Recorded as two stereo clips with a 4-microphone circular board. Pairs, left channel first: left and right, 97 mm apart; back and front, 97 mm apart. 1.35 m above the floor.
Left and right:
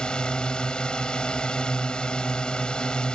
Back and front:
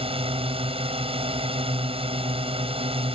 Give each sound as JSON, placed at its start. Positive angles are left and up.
{"t": 0.0, "sound": "a drone", "azimuth_deg": 10}